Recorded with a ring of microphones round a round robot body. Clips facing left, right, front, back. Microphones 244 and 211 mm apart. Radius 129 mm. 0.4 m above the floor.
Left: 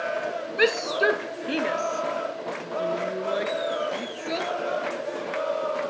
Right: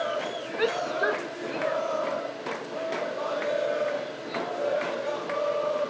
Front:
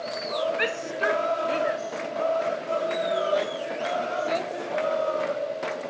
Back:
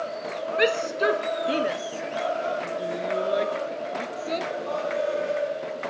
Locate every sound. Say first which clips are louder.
0.6 s a shout: left 4 dB, back 5 dB; 145° left; by 4.5 s 110° left